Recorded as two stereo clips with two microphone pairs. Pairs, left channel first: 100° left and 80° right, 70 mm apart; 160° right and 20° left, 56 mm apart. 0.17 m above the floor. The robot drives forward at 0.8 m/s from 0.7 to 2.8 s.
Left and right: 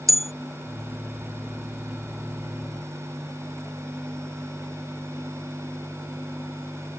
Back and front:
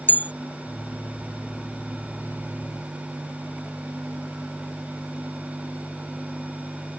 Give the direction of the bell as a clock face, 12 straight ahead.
4 o'clock.